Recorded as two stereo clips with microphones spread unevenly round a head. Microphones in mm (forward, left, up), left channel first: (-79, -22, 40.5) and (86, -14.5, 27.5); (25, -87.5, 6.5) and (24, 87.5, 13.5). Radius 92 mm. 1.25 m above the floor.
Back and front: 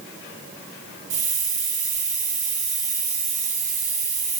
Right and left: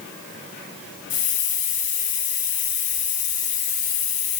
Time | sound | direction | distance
1.1 | a hiss | 45° right | 1.6 m